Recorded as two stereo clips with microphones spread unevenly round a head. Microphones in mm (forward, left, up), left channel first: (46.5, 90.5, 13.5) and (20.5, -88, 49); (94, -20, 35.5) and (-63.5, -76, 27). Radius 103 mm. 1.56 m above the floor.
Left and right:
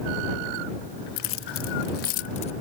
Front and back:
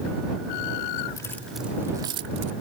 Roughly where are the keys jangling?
Left.